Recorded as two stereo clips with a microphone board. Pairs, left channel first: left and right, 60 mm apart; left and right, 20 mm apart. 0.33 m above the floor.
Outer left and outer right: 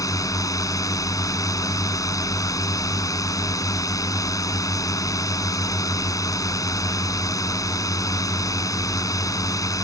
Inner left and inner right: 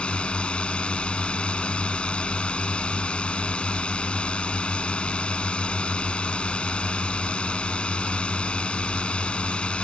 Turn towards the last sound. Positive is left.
turn(degrees=65)  # may be behind; listen again after turning